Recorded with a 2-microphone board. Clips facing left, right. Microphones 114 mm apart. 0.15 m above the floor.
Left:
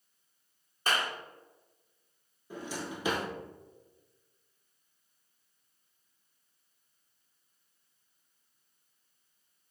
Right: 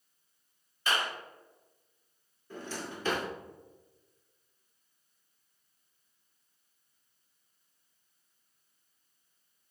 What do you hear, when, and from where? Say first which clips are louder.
0.9 s a clap: even; 40° left (ahead or behind), 1.9 m
2.5 s a drawer: left 1 dB; 10° left (ahead or behind), 1.0 m